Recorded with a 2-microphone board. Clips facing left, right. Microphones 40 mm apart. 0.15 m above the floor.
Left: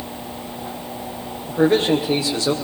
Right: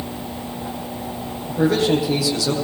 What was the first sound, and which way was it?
A man speaking, 35° left (ahead or behind).